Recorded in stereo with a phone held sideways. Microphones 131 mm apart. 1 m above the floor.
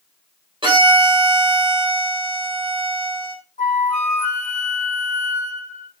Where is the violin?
40° right (ahead or behind), 5 m.